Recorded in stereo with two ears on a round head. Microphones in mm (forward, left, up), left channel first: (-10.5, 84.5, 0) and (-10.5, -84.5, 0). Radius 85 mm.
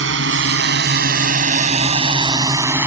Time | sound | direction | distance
0.0 | a drone | 70° right (ahead or behind) | ?